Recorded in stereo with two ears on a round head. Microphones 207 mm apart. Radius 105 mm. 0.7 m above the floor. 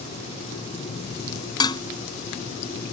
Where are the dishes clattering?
20° left (ahead or behind).